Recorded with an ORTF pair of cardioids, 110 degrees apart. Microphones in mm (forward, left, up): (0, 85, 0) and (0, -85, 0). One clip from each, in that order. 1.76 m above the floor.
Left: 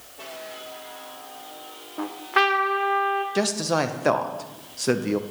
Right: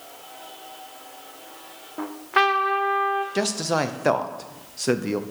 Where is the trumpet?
5° right, 0.8 m.